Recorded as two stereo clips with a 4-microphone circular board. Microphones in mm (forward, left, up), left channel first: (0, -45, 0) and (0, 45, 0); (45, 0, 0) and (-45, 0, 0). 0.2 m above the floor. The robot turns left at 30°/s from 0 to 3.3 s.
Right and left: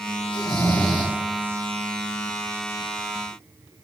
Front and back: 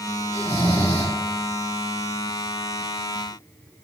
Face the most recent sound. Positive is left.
turn(degrees=40)